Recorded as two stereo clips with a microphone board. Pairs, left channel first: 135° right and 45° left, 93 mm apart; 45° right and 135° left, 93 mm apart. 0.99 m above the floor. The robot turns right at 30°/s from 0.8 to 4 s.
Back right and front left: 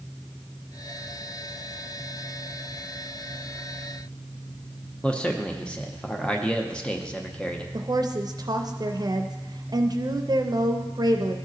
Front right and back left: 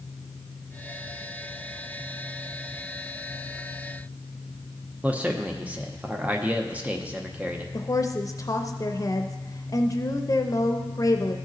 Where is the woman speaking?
5° left, 0.5 m.